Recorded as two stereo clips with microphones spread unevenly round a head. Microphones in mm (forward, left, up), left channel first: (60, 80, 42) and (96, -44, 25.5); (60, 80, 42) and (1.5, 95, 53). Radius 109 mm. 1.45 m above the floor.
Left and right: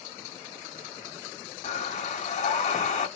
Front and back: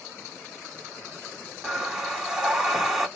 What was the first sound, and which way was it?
Breathing, 80° left.